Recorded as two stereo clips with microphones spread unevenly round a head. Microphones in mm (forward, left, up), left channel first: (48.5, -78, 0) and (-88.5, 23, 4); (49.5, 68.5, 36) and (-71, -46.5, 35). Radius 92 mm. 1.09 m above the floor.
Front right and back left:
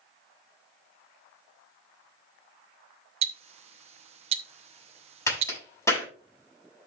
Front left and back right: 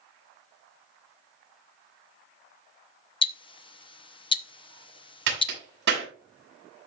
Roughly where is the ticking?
Left.